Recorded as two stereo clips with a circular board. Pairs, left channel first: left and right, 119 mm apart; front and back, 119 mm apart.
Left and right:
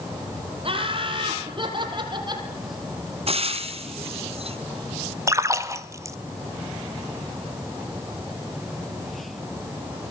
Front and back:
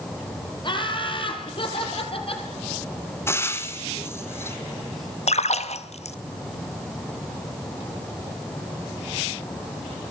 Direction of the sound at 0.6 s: 50° right.